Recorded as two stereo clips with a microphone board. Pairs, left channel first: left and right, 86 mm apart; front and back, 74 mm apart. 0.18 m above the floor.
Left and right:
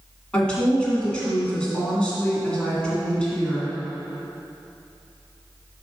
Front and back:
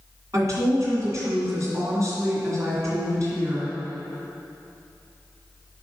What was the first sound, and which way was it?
A woman speaking, 165° left.